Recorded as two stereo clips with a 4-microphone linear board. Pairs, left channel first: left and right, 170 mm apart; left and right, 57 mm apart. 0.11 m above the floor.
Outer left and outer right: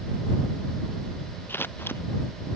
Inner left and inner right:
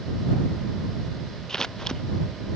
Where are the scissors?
10° left (ahead or behind).